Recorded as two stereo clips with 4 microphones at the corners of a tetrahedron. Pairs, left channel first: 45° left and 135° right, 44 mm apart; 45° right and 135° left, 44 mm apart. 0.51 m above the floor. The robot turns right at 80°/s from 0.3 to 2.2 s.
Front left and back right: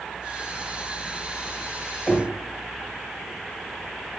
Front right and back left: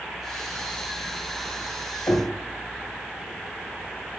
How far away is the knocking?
About 1.4 m.